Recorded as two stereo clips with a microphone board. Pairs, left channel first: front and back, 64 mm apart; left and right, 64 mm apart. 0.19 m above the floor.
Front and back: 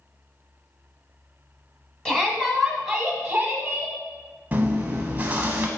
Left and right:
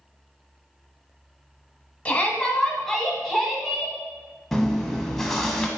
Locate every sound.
2.0 s a shout: 60° left, 1.6 m; by 3.9 s 160° right, 1.7 m
4.5 s chewing: 170° left, 1.2 m